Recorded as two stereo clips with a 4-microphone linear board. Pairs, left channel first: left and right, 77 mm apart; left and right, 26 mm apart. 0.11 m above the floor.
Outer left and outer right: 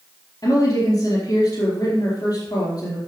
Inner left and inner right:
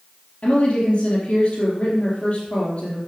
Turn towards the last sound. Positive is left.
turn(degrees=50)  # may be behind; listen again after turning